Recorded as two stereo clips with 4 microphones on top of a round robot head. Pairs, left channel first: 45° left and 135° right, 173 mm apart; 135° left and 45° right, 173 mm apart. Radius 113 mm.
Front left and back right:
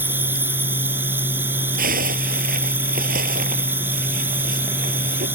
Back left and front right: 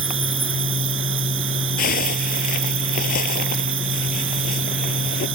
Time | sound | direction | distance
0.0 | an insect | 60° right | ?
1.8 | a zipper | straight behind | ?